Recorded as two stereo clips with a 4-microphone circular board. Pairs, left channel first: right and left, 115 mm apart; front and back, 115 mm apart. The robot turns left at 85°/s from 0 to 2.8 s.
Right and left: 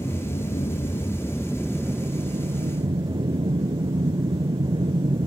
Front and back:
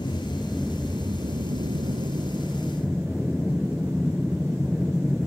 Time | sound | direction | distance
0.0 | an aircraft | 40° right | ?